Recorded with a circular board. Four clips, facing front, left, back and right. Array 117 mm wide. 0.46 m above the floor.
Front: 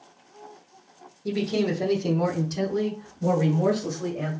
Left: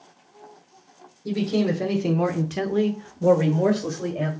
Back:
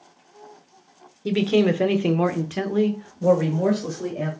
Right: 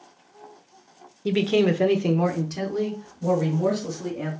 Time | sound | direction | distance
1.2 | a man speaking | 130° right | 1.0 m